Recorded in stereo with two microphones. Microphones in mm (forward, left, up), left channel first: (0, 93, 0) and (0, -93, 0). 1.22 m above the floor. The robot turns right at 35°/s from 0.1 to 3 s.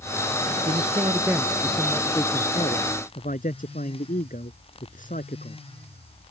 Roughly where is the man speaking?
Ahead right.